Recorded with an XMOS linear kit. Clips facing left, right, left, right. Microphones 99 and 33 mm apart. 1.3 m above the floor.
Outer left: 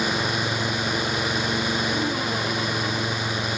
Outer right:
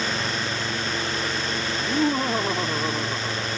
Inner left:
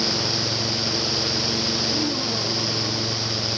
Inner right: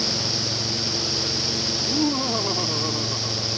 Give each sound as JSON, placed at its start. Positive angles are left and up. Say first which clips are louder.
{"t": 1.8, "sound": "laughter", "louder": "outer right 2 dB, inner right 1 dB", "side_deg": -35}